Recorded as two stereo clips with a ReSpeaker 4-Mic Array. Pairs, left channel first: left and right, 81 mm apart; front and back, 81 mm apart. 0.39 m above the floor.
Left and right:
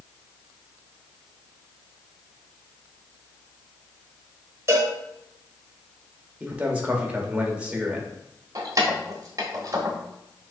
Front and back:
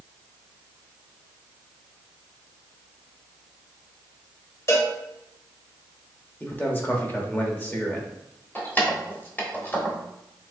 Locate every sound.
4.7 s a cowbell: 45° right, 0.9 m
6.4 s a man speaking: 35° right, 0.9 m
8.6 s keys jangling: 60° right, 1.0 m